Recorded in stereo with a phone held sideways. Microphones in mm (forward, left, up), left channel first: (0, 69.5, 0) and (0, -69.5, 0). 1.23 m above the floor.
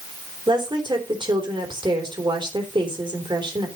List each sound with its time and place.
0.5 s a woman speaking: 35° right (ahead or behind), 3.5 m